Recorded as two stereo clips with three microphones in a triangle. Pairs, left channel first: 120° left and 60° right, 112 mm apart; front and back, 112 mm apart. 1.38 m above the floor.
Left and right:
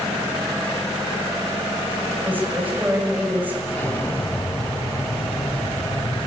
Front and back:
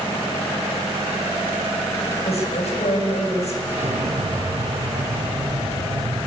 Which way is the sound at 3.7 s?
165° right.